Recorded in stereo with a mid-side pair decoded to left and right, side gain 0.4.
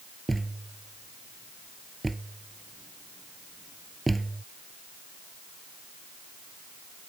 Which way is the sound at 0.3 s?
15° right.